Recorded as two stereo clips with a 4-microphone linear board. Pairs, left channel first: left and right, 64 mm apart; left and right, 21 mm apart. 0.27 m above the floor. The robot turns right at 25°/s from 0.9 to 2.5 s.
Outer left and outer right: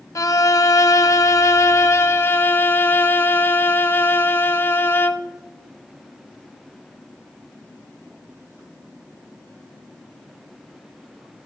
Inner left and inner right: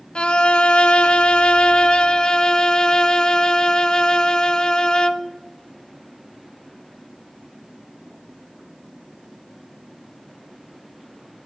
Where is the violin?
95° left, 0.7 m; by 5.3 s 135° left, 0.7 m.